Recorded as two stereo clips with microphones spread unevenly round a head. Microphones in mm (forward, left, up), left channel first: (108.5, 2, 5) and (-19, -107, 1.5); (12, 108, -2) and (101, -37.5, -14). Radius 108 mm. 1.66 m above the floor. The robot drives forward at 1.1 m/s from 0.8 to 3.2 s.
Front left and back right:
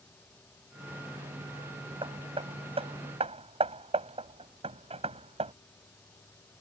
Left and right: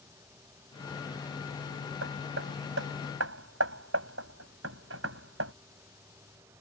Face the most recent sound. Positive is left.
turn(degrees=-85)